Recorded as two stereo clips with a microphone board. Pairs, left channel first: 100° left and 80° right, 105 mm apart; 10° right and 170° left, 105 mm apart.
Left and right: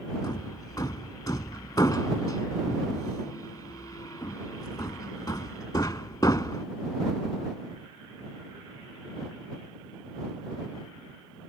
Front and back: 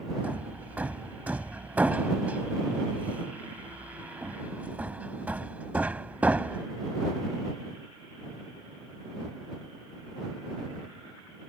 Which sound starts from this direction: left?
Hammering, at 0.2 s.